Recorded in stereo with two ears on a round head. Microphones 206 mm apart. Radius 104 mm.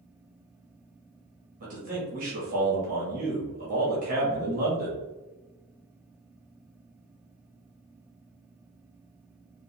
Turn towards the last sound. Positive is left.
turn(degrees=-35)  # may be behind; listen again after turning